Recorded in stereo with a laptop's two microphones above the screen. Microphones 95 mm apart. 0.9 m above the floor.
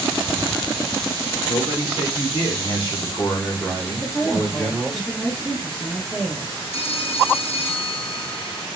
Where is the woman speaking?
10° left (ahead or behind), 1.1 m.